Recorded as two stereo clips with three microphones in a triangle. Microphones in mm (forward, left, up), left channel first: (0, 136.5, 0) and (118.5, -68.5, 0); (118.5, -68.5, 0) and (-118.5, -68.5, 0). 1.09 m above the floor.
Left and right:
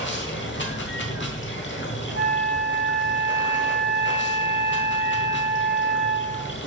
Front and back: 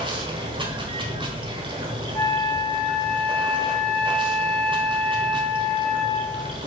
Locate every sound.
0.0 s running water: 115° left, 1.0 m
2.1 s a flute: 75° right, 1.3 m